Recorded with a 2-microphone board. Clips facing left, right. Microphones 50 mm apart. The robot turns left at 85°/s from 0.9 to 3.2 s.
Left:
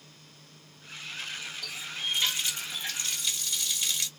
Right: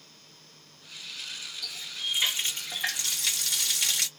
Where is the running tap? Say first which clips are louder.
Even; 35° left, 0.9 m; by 4.1 s 100° right, 0.9 m.